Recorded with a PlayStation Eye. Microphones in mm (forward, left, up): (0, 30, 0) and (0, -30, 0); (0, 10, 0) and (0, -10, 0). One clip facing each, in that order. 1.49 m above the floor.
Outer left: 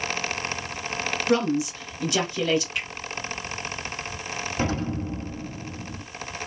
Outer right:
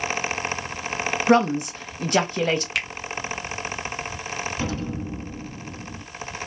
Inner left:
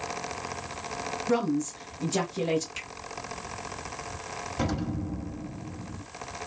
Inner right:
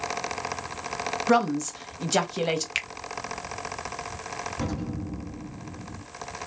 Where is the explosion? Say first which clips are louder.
Outer left 2 dB, inner left 1 dB; 35° left (ahead or behind), 1.2 m.